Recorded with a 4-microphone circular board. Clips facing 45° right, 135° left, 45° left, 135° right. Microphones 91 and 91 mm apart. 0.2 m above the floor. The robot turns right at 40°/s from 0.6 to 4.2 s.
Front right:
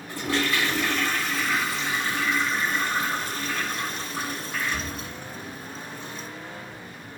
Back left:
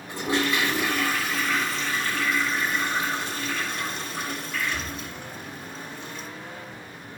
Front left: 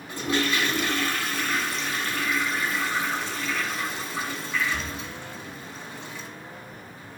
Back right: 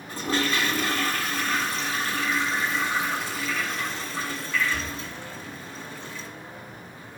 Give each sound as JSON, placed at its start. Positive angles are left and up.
{"t": 0.1, "sound": "a toilet flushing", "azimuth_deg": -165, "distance_m": 1.7}